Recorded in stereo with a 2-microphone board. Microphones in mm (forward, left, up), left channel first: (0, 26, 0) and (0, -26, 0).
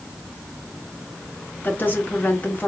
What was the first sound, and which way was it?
A woman speaking, 40° left (ahead or behind).